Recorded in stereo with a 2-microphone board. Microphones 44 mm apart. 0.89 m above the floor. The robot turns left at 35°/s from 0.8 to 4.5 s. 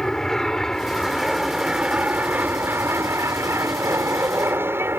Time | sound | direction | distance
0.0 | an aircraft | 10° left | ?